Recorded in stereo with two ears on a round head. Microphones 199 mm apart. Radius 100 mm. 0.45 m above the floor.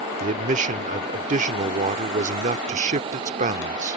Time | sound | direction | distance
0.2 | a man speaking | 30° right (ahead or behind) | ?